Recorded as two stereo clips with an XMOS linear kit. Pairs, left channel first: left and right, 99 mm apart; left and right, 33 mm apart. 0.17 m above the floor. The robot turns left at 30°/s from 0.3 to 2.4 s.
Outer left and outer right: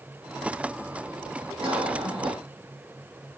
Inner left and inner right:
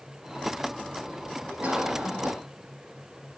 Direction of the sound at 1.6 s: 65° right (ahead or behind).